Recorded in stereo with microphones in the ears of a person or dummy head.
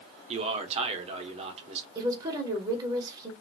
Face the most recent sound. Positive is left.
turn(degrees=-20)  # may be behind; listen again after turning